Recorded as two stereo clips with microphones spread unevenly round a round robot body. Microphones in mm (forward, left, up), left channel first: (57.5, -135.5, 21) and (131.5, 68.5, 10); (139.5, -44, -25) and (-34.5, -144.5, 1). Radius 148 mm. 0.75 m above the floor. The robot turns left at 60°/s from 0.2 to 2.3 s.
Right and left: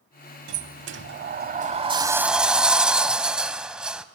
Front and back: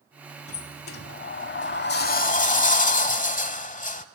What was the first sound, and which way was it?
A sliding door, 90° left.